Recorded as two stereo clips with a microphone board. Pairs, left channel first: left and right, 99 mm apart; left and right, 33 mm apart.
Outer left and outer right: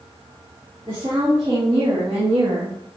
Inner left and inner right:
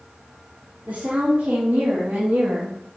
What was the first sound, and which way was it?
A woman speaking, 60° right (ahead or behind).